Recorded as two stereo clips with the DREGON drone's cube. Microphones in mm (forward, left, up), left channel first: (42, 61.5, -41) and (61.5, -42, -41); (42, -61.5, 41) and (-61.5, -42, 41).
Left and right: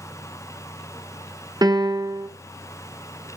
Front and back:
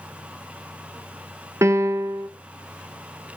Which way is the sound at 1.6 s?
125° right.